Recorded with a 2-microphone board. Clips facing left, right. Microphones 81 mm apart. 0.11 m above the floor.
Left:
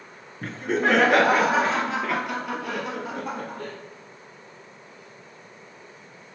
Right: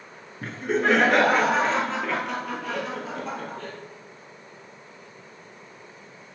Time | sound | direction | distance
0.4 | laughter | centre (ahead or behind) | 1.4 m